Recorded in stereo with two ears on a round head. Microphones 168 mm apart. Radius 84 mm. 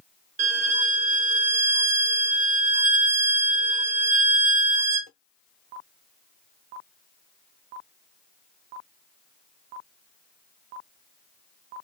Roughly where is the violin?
Right.